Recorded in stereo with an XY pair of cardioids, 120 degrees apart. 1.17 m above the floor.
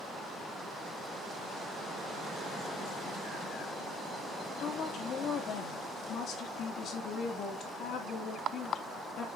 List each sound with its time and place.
4.6 s a woman speaking: 55° left, 3 m